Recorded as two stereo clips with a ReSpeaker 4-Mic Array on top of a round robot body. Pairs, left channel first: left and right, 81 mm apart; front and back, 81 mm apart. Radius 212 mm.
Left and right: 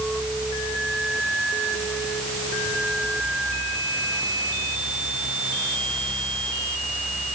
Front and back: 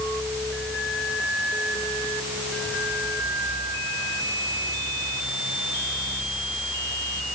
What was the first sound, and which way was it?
Only background noise.